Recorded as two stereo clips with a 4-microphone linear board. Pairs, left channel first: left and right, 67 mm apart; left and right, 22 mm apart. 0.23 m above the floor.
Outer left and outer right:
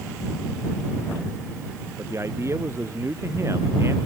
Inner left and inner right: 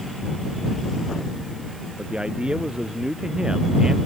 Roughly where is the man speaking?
Right.